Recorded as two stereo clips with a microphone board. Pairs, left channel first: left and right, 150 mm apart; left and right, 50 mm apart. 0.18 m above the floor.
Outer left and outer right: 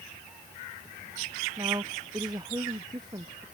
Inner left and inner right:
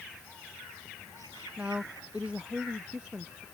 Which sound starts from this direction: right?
A woman speaking, at 1.6 s.